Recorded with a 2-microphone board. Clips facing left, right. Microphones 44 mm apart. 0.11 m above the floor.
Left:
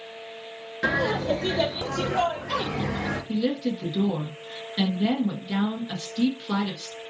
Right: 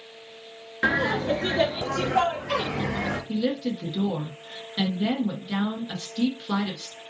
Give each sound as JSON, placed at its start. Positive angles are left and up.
{"t": 0.8, "sound": "laughter", "side_deg": -30, "distance_m": 1.2}
{"t": 3.3, "sound": "a woman speaking", "side_deg": -5, "distance_m": 1.2}